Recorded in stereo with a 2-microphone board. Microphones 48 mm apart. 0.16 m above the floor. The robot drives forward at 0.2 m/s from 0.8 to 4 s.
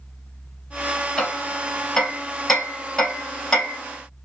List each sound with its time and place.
1.2 s hammering: 10° left (ahead or behind), 3 m